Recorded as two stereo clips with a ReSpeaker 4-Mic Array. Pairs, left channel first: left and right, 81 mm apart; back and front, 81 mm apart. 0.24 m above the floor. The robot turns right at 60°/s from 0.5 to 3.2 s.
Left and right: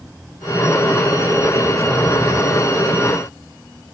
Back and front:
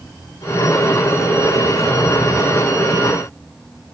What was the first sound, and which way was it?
Only background noise.